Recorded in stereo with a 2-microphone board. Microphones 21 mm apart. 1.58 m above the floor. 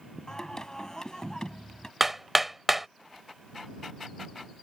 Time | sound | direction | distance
0.3 | singing | 25° left (ahead or behind) | ?
2.0 | hammering | 15° right (ahead or behind) | ?